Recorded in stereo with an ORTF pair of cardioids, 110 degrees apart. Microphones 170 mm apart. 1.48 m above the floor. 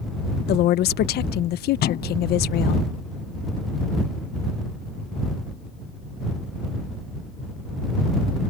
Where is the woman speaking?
70° left.